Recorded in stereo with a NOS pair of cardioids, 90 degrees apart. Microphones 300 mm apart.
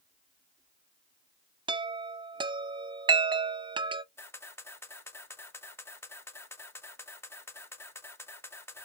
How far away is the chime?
About 0.5 m.